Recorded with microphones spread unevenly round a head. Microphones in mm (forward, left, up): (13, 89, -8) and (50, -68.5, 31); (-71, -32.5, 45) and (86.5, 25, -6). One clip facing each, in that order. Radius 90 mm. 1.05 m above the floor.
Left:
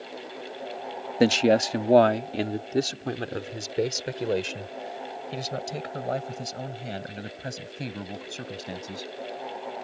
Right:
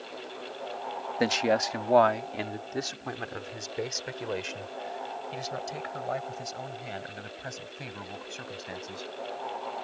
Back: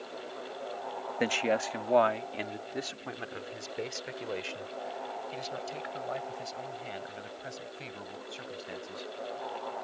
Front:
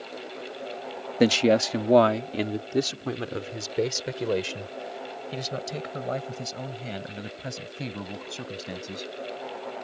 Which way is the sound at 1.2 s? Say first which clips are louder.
Left 6 dB, front 10 dB; 55° left.